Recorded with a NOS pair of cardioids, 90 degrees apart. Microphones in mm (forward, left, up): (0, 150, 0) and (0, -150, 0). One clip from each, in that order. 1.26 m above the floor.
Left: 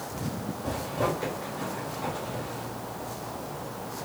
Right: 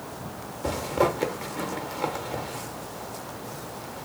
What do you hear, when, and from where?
0.6 s a zipper: 60° right, 1.0 m